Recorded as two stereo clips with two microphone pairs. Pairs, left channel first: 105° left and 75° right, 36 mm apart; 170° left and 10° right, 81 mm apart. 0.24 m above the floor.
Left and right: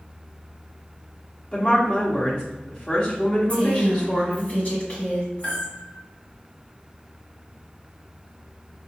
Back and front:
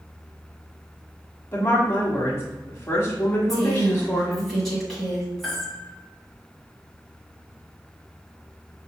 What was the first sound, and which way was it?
A woman speaking, 120° left.